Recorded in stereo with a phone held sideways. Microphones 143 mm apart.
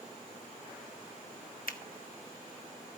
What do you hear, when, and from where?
1.7 s a finger snap: 80° left, 1.0 m